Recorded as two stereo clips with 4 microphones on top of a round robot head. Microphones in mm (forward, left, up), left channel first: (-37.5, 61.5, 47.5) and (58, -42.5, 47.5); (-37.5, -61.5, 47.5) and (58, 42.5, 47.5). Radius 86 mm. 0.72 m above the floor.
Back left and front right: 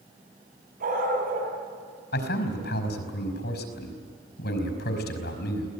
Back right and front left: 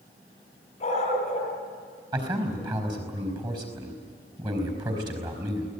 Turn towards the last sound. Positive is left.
turn(degrees=115)